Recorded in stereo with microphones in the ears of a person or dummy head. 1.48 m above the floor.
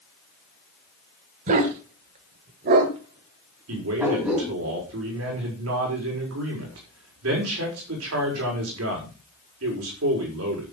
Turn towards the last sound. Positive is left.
turn(degrees=-85)